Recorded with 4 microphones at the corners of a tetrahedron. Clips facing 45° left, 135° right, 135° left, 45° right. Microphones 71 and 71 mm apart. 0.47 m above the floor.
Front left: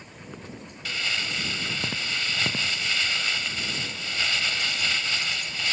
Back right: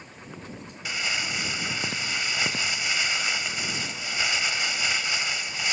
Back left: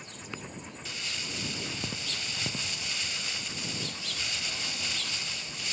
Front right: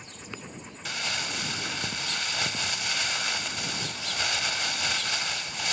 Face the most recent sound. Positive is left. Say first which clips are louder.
# even, front right 8 dB
turn(degrees=-60)